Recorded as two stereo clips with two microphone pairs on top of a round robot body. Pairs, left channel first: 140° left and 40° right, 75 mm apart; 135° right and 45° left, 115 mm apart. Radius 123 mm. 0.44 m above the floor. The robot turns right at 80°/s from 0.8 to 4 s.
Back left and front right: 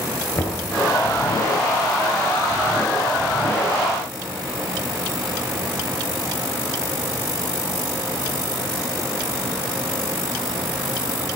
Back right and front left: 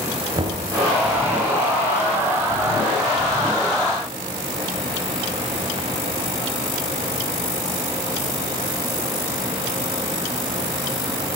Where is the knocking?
90° left, 6.5 m.